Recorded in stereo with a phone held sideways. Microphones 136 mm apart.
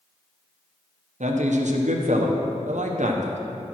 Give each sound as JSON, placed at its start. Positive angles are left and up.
{"t": 1.2, "sound": "a man speaking", "side_deg": -65, "distance_m": 1.1}